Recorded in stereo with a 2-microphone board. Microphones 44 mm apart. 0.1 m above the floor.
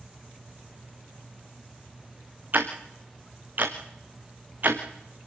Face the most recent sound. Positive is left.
turn(degrees=-40)  # may be behind; listen again after turning